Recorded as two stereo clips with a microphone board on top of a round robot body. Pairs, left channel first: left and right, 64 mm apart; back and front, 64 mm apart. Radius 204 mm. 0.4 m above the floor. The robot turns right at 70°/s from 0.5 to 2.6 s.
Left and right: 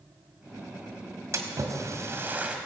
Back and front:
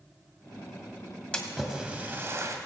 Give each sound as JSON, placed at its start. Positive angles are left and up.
{"t": 1.3, "sound": "a splash", "azimuth_deg": -110, "distance_m": 2.0}